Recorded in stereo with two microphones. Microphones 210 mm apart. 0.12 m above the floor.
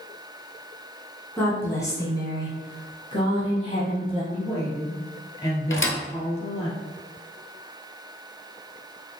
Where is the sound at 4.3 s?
15° left (ahead or behind), 1.7 m.